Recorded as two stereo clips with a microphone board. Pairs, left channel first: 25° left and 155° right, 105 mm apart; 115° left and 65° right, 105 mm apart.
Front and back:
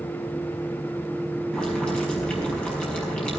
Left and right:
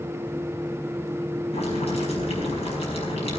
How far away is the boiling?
About 5 m.